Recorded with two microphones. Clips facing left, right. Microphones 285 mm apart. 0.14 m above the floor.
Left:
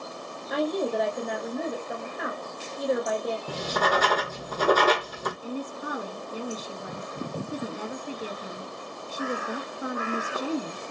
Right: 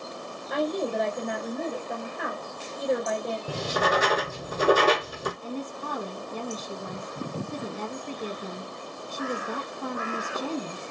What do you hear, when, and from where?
0.5 s a woman speaking: centre (ahead or behind), 2.5 m
3.5 s writing: 10° right (ahead or behind), 1.4 m
5.4 s a woman speaking: 10° left (ahead or behind), 1.1 m